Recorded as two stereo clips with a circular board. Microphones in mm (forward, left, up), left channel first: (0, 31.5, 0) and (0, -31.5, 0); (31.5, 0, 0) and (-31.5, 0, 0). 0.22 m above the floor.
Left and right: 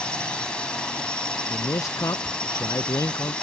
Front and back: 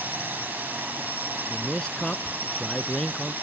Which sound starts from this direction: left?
A man speaking, at 1.5 s.